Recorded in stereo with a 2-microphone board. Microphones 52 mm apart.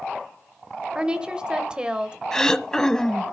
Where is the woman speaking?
20° right (ahead or behind), 0.9 m.